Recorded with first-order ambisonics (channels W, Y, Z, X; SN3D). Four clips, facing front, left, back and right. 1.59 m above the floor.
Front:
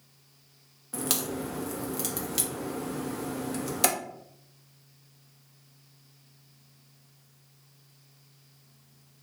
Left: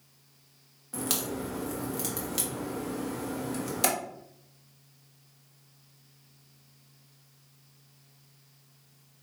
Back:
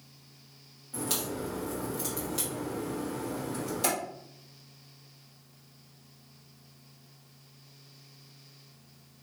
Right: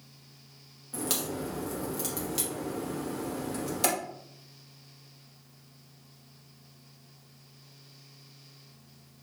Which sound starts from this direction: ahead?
A crack, at 0.9 s.